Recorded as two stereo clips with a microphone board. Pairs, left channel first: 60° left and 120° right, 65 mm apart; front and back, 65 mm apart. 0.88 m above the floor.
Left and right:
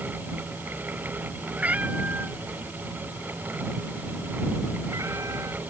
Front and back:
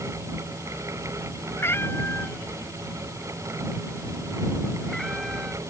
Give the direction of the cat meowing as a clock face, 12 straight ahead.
2 o'clock.